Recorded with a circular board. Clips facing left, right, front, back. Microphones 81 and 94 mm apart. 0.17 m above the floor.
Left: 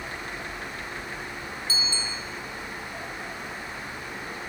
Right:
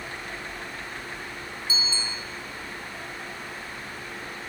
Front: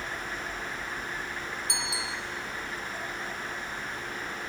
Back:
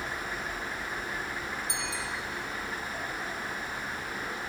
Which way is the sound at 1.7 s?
20° right.